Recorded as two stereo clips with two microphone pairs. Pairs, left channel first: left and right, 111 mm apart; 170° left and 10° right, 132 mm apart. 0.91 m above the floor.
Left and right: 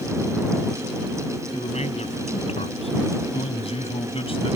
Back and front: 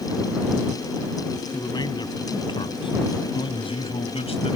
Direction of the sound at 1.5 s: 110° left.